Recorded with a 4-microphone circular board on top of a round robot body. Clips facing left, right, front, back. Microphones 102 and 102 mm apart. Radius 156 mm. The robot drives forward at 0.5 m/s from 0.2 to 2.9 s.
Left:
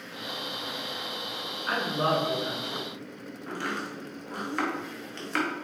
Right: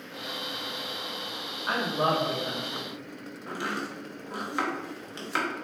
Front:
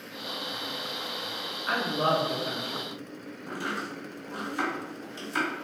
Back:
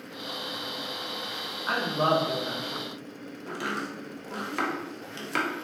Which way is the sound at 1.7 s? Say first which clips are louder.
Right 1 dB, back 1 dB; 140° right.